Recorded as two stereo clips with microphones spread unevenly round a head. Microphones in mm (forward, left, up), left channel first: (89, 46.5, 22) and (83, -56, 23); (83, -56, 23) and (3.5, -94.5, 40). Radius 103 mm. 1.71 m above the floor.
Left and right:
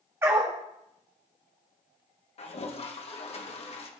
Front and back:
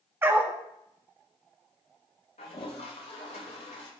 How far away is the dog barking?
About 1.2 m.